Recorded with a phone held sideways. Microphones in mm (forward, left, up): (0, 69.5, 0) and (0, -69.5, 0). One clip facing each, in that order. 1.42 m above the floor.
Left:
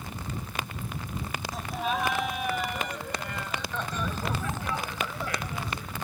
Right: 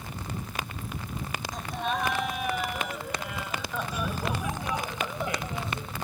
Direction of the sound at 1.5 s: 5° left (ahead or behind).